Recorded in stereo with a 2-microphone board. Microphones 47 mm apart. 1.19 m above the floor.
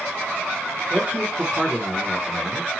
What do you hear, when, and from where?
0.9 s a man speaking: 40° right (ahead or behind), 1.1 m; by 2.8 s 25° left (ahead or behind), 0.8 m